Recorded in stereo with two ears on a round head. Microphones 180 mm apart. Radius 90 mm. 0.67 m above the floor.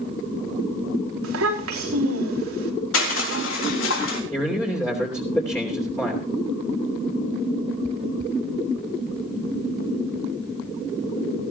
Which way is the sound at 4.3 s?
15° left (ahead or behind).